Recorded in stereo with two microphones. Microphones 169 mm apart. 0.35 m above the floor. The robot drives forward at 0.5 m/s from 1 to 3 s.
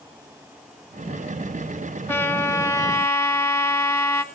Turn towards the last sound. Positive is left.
turn(degrees=15)  # may be behind; listen again after turning